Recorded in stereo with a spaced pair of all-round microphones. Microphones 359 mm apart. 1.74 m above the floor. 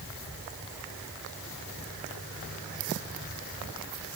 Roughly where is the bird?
No bird in this recording.